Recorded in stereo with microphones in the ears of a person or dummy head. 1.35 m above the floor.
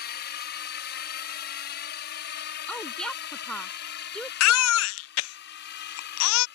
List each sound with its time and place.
0.0 s a drone: 50° left (ahead or behind); by 6.6 s 60° left (ahead or behind)
2.7 s a woman speaking: 5° left (ahead or behind)
4.4 s a baby crying: 80° left